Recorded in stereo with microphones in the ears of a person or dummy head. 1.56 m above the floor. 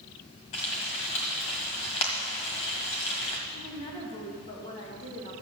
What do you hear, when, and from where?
0.5 s frying: 30° left (ahead or behind), 1.6 m
3.5 s a woman speaking: 30° left (ahead or behind), 2.5 m